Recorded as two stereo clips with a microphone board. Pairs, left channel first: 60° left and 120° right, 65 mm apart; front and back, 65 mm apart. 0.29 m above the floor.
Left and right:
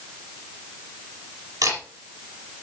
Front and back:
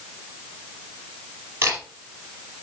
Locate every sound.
1.6 s a camera shutter: 130° right, 5 m